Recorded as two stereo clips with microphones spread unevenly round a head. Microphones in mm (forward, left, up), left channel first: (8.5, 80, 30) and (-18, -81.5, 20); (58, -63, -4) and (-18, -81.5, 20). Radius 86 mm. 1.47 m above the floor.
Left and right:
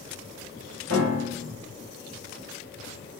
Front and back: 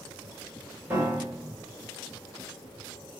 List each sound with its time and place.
0.9 s a piano: 105° right, 2.5 m